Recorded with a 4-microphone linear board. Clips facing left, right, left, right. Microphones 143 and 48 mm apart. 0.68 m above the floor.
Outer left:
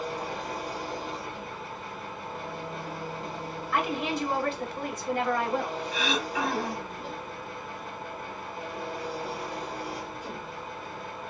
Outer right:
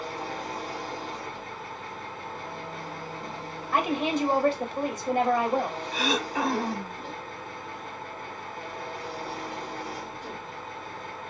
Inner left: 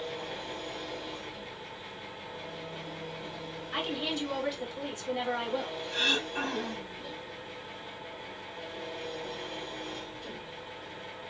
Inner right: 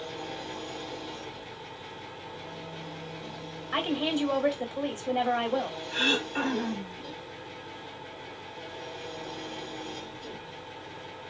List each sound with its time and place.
0.0 s an engine running: 5° left (ahead or behind), 2.5 m
3.7 s a woman speaking: 40° right (ahead or behind), 1.4 m
5.9 s throat clearing: 40° right (ahead or behind), 1.5 m